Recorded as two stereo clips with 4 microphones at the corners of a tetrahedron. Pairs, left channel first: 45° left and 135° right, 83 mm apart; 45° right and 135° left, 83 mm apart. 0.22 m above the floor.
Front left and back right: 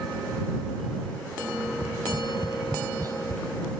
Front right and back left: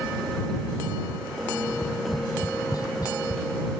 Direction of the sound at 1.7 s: 90° right.